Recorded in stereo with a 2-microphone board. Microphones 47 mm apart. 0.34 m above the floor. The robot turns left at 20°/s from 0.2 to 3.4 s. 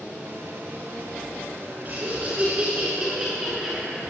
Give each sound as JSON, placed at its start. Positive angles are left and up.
{"t": 1.9, "sound": "laughter", "azimuth_deg": -140, "distance_m": 8.5}